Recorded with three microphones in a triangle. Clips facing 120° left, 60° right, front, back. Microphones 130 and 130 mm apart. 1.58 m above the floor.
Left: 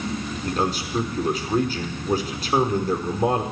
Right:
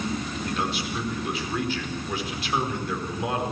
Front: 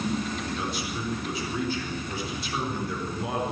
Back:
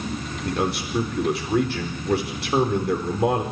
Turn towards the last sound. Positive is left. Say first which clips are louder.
# left 5 dB, back 6 dB
turn(degrees=170)